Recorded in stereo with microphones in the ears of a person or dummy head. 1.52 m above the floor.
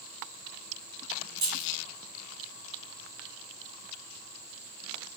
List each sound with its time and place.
1.4 s keys jangling: 25° right (ahead or behind), 0.9 m